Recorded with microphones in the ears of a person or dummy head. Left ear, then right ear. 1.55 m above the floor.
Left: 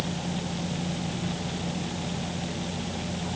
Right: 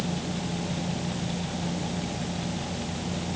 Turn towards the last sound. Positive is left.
No sound to turn to.